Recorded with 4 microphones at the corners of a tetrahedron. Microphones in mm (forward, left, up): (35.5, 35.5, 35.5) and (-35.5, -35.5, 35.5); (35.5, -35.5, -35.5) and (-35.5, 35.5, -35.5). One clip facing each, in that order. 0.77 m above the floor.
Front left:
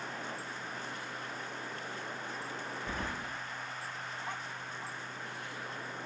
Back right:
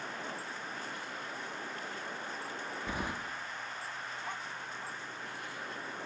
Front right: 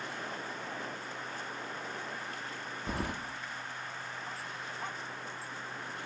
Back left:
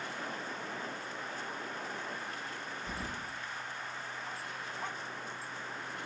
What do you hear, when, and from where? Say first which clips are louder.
2.9 s keys jangling: back right 2 dB, front right 7 dB; 60° right, 0.6 m